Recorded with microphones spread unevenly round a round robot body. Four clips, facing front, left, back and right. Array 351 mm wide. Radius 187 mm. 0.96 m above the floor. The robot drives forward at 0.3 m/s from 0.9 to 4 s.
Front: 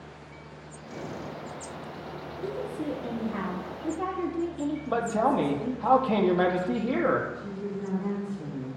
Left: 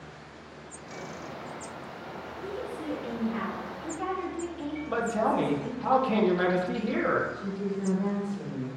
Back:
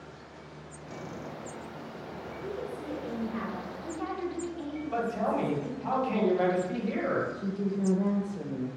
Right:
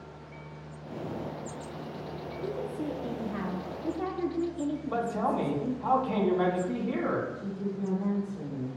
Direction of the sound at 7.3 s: 165° left.